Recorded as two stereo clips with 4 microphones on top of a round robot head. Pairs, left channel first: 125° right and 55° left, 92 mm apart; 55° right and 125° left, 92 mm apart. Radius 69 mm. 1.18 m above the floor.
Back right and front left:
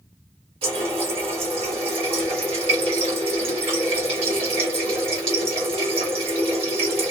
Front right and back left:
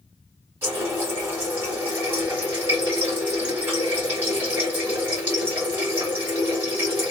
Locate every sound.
0.6 s a running tap: 60° left, 1.5 m